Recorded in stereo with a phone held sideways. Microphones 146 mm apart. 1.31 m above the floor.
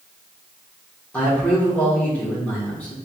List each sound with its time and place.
1.1 s a man speaking: 10° left (ahead or behind), 1.8 m